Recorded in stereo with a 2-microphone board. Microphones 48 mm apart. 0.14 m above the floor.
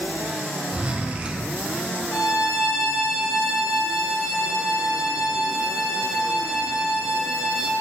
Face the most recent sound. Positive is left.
turn(degrees=65)  # may be behind; listen again after turning